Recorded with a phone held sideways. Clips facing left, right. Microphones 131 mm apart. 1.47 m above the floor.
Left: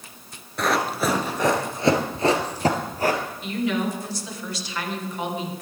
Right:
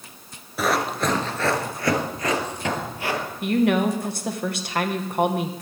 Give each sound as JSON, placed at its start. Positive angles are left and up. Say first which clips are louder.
{"t": 0.6, "sound": "running footsteps", "louder": "even", "side_deg": -5, "distance_m": 1.5}
{"t": 3.4, "sound": "a woman speaking", "louder": "right 7 dB", "side_deg": -55, "distance_m": 1.6}